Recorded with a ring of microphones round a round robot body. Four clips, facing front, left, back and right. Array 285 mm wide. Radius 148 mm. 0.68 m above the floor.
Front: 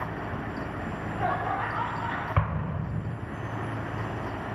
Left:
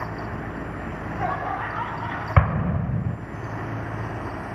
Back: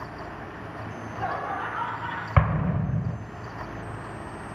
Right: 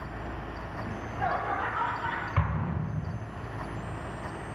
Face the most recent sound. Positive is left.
turn(degrees=115)